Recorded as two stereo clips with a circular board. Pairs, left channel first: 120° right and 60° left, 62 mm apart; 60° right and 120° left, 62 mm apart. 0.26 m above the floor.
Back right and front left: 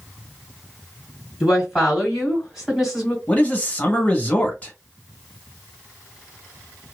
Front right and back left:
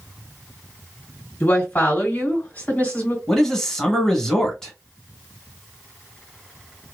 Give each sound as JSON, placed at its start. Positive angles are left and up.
{"t": 1.4, "sound": "a woman speaking", "azimuth_deg": -15, "distance_m": 2.0}
{"t": 3.3, "sound": "a man speaking", "azimuth_deg": -130, "distance_m": 1.1}